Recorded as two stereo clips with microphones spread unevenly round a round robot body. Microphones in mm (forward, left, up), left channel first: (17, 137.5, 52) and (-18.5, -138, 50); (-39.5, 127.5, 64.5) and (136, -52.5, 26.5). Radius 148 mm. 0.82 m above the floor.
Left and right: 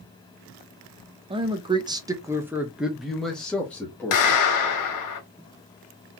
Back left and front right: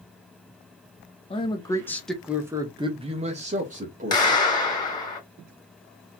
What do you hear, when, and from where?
1.3 s a man speaking: 155° right, 0.9 m; by 4.5 s straight ahead, 1.6 m
4.1 s a clap: 60° left, 1.9 m